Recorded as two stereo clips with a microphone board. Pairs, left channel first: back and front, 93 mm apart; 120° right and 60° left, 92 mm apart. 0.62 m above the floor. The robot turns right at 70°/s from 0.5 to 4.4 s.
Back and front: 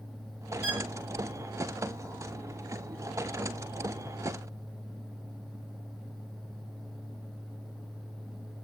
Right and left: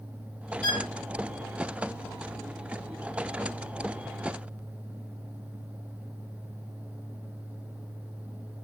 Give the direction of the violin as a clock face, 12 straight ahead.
2 o'clock.